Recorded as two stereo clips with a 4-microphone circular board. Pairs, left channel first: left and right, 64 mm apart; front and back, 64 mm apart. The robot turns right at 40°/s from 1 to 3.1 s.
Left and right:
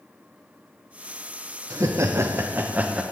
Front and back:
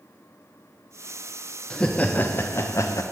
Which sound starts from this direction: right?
Laughter, at 1.7 s.